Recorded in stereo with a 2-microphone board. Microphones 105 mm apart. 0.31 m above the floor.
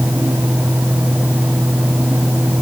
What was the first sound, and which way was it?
Only background noise.